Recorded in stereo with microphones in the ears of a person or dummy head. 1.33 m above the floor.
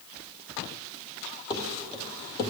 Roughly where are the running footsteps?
Left.